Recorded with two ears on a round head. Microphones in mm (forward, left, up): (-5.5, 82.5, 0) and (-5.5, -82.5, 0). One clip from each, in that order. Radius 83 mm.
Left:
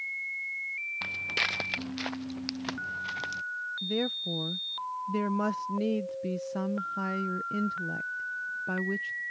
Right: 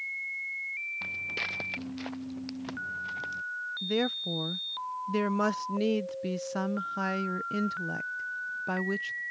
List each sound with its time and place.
1.0 s footsteps: 40° left (ahead or behind); by 3.4 s 50° left (ahead or behind)
3.8 s a woman speaking: 30° right (ahead or behind)